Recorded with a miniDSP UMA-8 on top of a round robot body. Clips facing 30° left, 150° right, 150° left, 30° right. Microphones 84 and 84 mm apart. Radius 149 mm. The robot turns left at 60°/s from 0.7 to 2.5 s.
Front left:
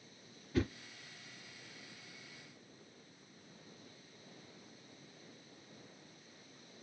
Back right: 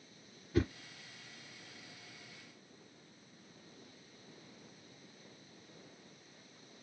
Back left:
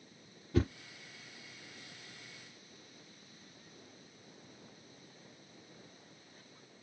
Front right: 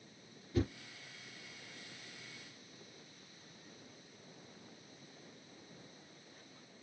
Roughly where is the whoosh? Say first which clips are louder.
Back right 2 dB, back left 3 dB; behind left.